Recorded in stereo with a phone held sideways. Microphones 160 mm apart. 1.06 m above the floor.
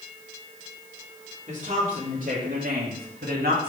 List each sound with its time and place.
1.5 s a woman speaking: 50° right (ahead or behind), 3 m; by 3.7 s 70° right (ahead or behind), 1.8 m